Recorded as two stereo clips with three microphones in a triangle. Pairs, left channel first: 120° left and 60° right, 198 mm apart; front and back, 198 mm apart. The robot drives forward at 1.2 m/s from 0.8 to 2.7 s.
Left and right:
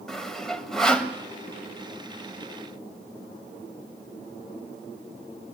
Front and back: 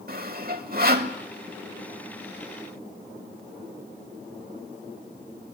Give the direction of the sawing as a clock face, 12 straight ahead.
5 o'clock.